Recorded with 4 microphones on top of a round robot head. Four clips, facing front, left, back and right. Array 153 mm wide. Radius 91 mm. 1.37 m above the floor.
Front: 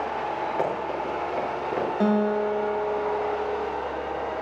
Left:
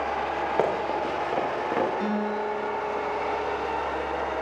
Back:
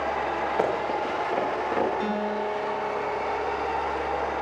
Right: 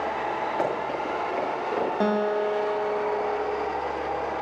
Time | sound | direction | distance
0.6 | running footsteps | 85° left | 8 m
2.0 | a guitar | 50° right | 1.4 m